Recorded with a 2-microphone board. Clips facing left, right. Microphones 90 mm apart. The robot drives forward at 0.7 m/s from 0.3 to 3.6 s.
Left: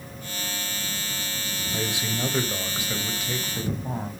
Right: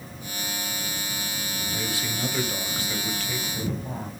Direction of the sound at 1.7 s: 20° left (ahead or behind).